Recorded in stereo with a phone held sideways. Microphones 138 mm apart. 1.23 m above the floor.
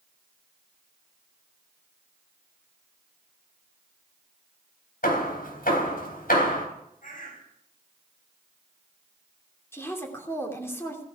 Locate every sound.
5.0 s hammering: 80° left, 4 m
7.0 s a bird: 70° left (ahead or behind), 5 m
9.7 s a woman speaking: 20° left (ahead or behind), 3 m